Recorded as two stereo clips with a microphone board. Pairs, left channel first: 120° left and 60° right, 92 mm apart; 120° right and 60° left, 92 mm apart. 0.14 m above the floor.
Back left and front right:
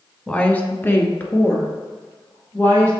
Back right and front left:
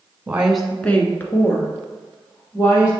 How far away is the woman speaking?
About 1.0 m.